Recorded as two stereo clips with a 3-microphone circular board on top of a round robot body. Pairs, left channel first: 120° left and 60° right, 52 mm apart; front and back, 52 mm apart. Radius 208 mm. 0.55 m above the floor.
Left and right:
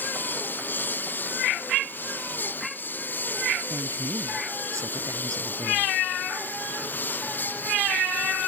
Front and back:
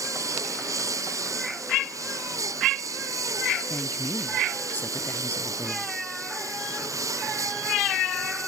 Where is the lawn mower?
175° left.